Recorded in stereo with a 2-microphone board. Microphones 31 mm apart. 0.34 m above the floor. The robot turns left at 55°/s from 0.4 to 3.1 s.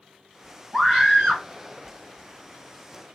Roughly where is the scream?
Ahead.